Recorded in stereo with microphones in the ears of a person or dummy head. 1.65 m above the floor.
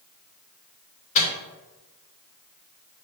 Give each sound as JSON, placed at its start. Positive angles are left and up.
{"t": 1.1, "sound": "a microwave", "side_deg": 35, "distance_m": 0.8}